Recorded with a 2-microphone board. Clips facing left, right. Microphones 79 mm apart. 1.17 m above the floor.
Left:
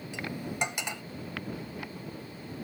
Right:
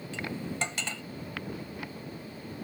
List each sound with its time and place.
0.1 s cutlery clinking: 20° left (ahead or behind)